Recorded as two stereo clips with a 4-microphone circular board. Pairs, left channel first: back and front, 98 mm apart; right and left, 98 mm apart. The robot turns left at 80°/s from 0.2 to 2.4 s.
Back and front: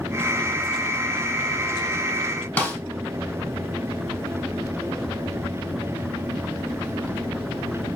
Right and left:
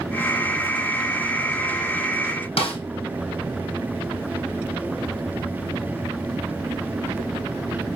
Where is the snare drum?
110° right, 4.5 m.